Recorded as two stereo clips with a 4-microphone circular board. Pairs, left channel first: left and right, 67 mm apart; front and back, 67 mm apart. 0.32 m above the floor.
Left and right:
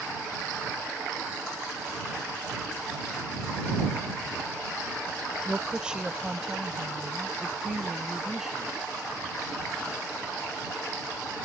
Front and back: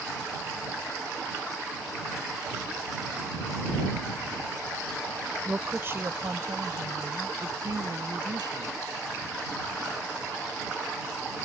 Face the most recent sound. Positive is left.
turn(degrees=-175)